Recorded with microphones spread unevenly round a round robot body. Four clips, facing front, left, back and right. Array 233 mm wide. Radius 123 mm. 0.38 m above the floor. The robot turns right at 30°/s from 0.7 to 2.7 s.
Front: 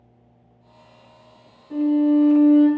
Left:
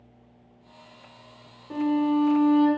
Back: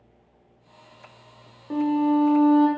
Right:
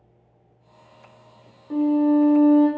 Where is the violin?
175° left, 0.7 m; by 2.7 s 155° right, 0.7 m.